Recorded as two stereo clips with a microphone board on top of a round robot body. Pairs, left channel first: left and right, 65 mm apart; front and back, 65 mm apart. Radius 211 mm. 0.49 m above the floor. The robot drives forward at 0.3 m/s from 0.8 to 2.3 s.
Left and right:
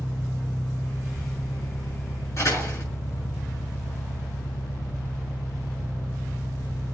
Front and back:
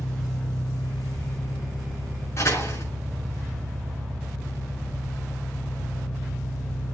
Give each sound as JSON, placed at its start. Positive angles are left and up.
{"t": 0.0, "sound": "an engine running", "azimuth_deg": 90, "distance_m": 6.5}
{"t": 2.4, "sound": "a door slam", "azimuth_deg": 50, "distance_m": 7.0}